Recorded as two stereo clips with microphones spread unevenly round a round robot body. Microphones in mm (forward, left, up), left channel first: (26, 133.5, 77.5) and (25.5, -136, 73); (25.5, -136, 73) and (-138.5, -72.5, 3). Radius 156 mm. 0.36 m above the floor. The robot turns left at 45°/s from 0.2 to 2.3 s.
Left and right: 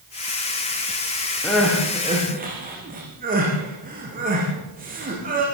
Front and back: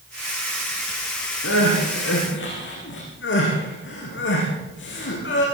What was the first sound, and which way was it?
Crying, 10° left.